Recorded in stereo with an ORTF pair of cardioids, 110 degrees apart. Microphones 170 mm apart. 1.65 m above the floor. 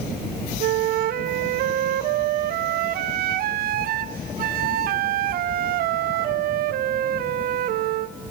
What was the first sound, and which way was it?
A flute, 60° right.